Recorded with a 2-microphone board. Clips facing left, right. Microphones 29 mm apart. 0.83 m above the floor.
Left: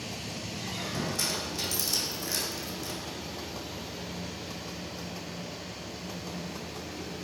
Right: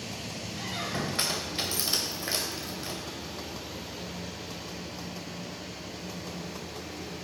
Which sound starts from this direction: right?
A squeak, at 0.6 s.